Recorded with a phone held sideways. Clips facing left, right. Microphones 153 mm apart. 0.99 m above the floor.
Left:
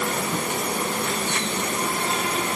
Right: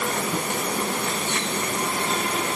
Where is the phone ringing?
I don't hear a phone ringing.